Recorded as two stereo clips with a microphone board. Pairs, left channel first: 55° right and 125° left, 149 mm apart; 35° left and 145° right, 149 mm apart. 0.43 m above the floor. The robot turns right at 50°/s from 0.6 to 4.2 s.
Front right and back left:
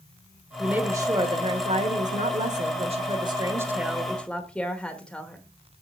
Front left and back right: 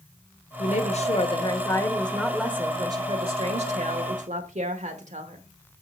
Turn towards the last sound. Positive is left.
turn(degrees=-135)